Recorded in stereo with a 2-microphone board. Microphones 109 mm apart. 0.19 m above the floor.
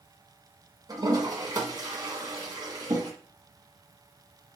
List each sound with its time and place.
0.9 s a toilet flushing: 40° right (ahead or behind), 2 m